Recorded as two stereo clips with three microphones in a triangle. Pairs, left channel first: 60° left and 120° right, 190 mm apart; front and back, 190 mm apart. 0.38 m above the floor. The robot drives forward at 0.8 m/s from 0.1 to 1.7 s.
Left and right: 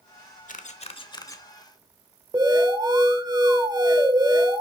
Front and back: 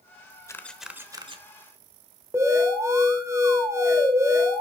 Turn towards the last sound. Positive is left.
turn(degrees=-135)